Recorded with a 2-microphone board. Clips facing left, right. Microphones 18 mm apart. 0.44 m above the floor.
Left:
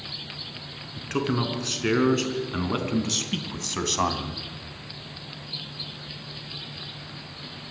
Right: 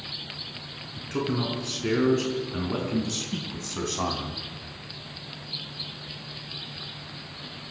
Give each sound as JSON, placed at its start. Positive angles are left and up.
{"t": 1.0, "sound": "a man speaking", "side_deg": 40, "distance_m": 4.5}